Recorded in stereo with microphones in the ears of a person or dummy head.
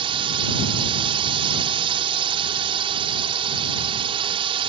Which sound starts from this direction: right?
A drone, at 0.0 s.